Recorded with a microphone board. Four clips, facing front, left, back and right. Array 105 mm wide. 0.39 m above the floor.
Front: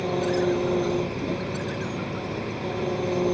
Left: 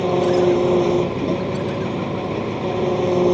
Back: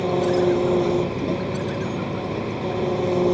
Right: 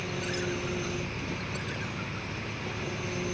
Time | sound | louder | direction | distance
0.0 | an engine running | left 18 dB, back 4 dB | 110° left | ?